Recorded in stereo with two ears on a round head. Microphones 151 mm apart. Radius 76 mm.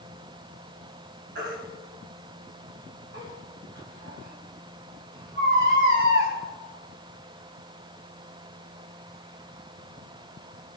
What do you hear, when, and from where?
1.4 s a baby crying: 60° right (ahead or behind), 3.5 m